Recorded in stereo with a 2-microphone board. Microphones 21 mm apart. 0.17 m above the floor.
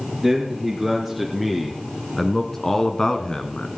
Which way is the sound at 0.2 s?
20° right (ahead or behind).